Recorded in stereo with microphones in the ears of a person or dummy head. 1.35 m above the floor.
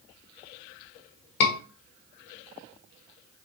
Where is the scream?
75° left (ahead or behind), 1.1 m.